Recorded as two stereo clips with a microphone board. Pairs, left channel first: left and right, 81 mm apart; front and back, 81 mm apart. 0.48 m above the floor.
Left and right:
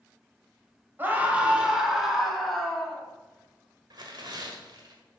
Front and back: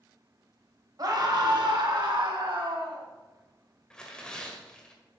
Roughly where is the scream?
Behind right.